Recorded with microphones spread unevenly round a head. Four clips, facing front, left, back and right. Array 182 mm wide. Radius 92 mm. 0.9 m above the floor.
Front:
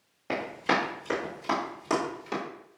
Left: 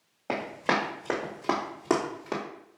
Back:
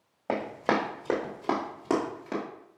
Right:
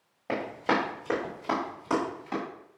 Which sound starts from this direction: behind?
Running footsteps, at 0.3 s.